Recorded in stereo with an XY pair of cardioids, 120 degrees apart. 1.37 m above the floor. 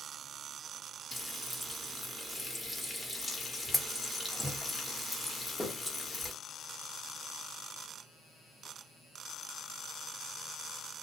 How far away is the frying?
About 1.1 m.